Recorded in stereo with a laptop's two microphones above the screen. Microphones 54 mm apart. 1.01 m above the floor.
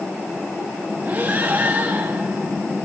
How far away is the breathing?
About 1.6 m.